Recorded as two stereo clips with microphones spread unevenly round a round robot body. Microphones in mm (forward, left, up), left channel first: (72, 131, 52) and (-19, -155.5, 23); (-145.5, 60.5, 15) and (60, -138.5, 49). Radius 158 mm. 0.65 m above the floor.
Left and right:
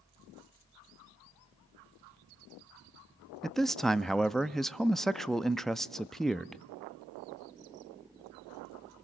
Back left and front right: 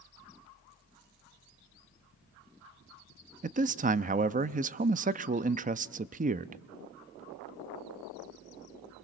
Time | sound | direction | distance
3.4 | a man speaking | 30° right | 0.6 m